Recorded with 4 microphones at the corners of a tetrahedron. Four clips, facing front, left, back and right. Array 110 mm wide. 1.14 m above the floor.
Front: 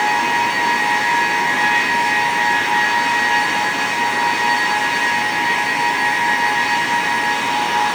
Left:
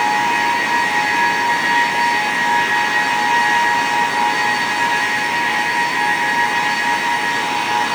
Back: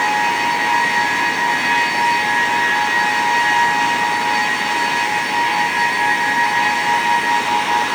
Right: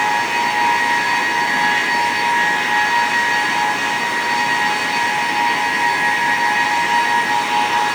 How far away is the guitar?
No guitar in this recording.